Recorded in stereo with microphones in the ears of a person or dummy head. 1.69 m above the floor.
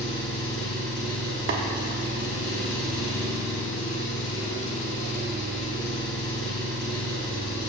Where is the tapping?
60° right (ahead or behind), 1.1 m.